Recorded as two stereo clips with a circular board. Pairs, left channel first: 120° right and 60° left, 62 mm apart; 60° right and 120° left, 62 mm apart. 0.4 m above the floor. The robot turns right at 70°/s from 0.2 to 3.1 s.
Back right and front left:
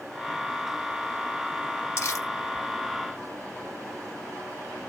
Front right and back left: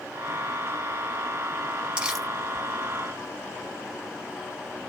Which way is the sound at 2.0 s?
165° right.